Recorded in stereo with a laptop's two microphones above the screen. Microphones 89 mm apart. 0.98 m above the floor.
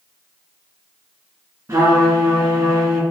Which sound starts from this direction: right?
A trumpet, at 1.7 s.